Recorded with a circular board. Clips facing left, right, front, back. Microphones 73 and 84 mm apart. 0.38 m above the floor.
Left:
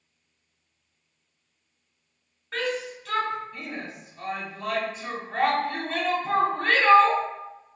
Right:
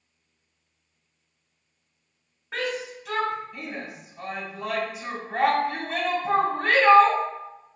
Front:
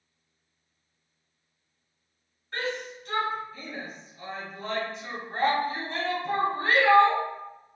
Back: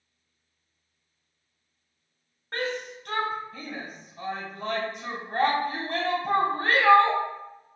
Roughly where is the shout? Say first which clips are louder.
Left 1 dB, back 1 dB; behind.